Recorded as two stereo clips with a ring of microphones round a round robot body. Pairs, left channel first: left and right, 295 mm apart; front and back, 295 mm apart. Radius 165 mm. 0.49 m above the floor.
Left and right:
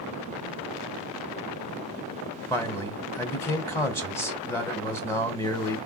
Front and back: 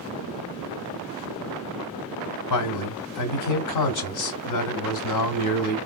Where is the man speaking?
10° left, 1.9 m.